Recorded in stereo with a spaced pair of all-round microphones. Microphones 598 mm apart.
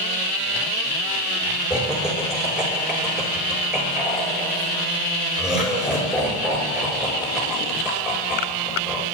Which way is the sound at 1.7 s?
Centre (ahead or behind).